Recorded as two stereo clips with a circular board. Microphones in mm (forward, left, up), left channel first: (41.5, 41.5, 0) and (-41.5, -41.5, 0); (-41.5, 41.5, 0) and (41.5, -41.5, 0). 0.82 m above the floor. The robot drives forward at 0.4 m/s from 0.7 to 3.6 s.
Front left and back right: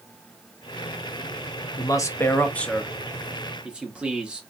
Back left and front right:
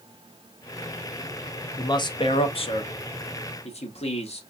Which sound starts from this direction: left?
A man speaking, at 1.8 s.